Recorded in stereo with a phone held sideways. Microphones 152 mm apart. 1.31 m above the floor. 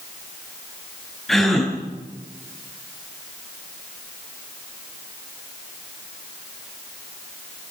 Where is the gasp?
Centre (ahead or behind), 7.5 m.